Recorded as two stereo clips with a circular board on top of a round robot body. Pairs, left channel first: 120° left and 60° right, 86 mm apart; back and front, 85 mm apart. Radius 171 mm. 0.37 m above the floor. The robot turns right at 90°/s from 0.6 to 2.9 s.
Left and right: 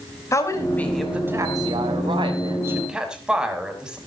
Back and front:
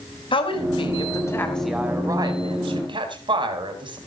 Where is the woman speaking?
175° left, 4.5 m; by 4.0 s 20° left, 4.5 m.